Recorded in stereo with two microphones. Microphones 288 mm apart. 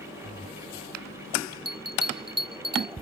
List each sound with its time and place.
1.6 s a bell: 60° right (ahead or behind)